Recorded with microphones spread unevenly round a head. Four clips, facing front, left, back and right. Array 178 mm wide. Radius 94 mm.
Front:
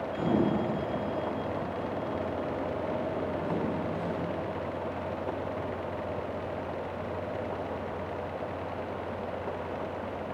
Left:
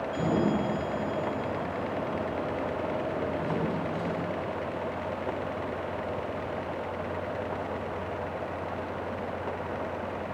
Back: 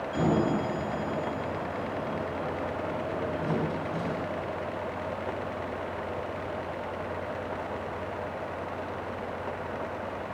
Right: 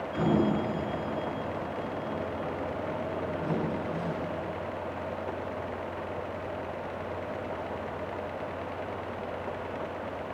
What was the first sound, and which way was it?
A sliding door, 175° left.